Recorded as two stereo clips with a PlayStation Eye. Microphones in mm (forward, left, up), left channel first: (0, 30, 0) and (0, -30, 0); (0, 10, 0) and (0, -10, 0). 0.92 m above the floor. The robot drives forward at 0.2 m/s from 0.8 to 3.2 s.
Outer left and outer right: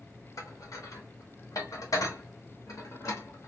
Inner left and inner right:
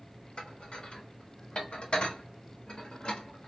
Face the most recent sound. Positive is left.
turn(degrees=70)  # may be behind; listen again after turning